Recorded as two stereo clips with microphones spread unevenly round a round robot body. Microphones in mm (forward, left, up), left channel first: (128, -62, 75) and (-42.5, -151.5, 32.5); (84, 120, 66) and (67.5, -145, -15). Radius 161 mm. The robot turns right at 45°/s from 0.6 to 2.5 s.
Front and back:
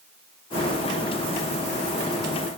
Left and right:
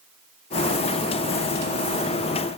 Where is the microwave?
No microwave in this recording.